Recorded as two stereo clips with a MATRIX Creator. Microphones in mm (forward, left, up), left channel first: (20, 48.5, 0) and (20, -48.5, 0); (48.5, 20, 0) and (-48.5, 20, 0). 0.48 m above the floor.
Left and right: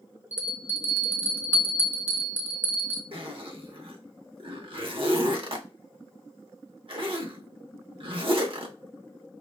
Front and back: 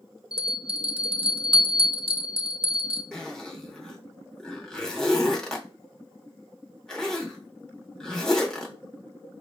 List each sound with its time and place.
0.3 s a bell: 160° right, 0.5 m
3.1 s a zipper: 85° right, 0.7 m